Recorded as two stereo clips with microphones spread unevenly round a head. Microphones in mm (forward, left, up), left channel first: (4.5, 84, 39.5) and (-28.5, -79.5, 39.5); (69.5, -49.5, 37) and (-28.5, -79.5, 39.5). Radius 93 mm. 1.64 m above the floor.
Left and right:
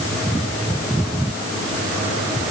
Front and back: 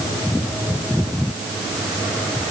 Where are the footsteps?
I don't hear footsteps.